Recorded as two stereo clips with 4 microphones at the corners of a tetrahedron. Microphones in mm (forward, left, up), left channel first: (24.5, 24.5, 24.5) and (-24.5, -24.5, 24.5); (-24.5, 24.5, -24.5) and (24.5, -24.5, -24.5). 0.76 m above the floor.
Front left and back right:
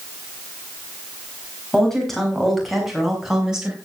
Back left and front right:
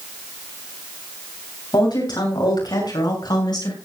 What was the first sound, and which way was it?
A woman speaking, 130° left.